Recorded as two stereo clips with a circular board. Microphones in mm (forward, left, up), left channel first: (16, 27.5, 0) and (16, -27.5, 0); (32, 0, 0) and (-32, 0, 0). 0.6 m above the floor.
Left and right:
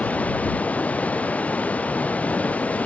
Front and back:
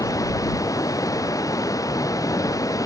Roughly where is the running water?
Ahead left.